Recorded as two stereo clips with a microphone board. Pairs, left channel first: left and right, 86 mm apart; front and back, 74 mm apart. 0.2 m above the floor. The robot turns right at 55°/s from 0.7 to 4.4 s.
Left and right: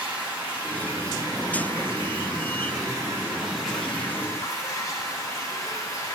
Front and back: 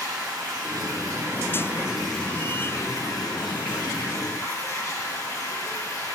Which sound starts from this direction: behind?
Running water, at 0.0 s.